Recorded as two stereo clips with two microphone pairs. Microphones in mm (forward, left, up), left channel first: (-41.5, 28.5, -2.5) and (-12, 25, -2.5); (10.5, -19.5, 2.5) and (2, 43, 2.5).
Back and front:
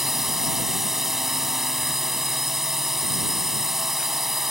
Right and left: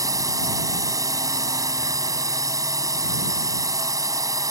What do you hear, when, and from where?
0.0 s a drone: 75° left